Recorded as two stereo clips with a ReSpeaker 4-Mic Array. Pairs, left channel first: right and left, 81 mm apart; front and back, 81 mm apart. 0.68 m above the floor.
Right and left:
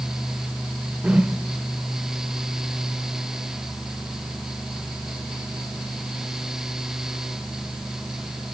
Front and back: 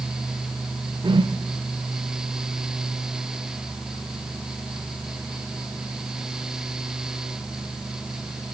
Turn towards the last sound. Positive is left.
turn(degrees=165)